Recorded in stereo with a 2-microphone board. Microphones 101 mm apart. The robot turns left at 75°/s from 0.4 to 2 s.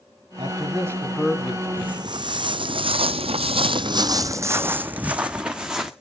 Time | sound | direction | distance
0.4 | a man speaking | 115° right | 2.5 m
1.8 | footsteps | 60° right (ahead or behind) | 1.2 m